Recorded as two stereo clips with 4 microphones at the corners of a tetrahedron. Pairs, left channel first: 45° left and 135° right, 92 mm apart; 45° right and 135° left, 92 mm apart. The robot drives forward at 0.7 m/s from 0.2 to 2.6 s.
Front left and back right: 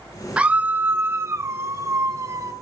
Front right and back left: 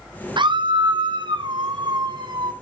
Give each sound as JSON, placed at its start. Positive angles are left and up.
{"t": 0.4, "sound": "a scream", "azimuth_deg": 145, "distance_m": 0.7}